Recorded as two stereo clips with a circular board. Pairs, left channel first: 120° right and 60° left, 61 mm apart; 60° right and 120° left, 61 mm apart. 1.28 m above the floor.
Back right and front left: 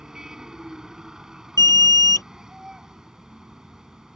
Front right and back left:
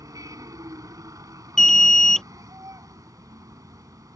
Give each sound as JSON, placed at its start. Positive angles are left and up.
{"t": 0.0, "sound": "a vehicle", "azimuth_deg": 140}
{"t": 1.6, "sound": "an alarm", "azimuth_deg": -140}